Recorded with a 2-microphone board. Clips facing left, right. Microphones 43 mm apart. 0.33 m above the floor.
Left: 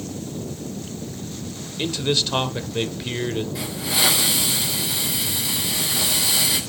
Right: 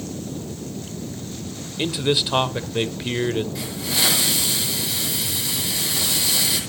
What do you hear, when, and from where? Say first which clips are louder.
1.8 s a man speaking: right 1 dB; 10° right (ahead or behind), 0.9 m
3.5 s a hiss: left 1 dB; 5° left (ahead or behind), 6 m